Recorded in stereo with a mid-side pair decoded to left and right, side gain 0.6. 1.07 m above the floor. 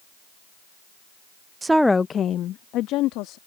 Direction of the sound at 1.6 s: 25° right.